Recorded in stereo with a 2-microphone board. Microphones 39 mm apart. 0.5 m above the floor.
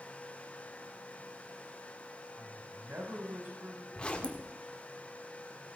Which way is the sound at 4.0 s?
30° left (ahead or behind).